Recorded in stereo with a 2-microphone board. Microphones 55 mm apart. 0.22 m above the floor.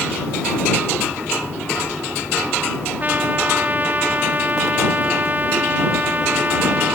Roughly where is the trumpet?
Right.